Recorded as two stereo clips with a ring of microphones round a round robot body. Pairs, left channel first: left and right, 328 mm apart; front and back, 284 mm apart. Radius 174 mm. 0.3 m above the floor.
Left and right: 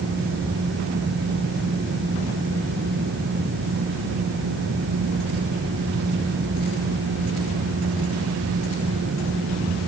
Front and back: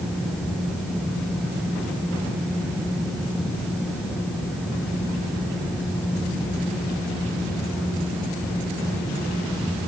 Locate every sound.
Only background noise.